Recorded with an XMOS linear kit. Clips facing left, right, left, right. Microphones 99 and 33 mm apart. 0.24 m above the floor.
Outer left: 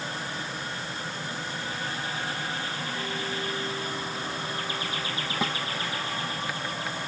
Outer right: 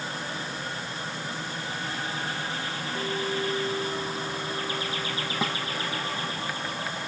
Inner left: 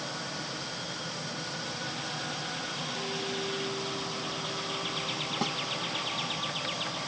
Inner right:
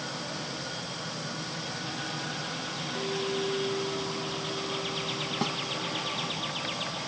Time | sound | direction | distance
3.0 | a clink | 25° right (ahead or behind) | ?
5.4 | a snare drum | centre (ahead or behind) | ?